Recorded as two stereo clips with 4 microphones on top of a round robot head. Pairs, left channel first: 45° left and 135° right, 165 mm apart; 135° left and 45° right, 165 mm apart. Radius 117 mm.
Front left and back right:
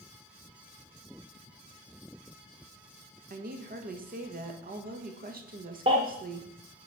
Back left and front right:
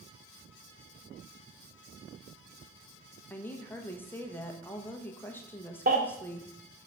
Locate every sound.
3.3 s a woman speaking: 145° right, 1.3 m
5.9 s a baby crying: 80° right, 0.7 m